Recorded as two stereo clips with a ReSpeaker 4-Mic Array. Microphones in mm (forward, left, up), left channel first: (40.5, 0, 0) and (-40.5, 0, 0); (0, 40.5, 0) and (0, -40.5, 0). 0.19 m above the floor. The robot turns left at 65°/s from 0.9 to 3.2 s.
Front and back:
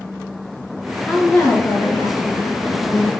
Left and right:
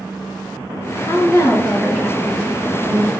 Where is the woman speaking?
70° left, 3 m; by 3.1 s 65° right, 3 m.